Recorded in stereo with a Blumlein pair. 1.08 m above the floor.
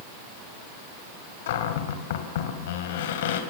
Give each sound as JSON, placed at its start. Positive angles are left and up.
{"t": 1.5, "sound": "a cupboard door", "azimuth_deg": 55, "distance_m": 3.5}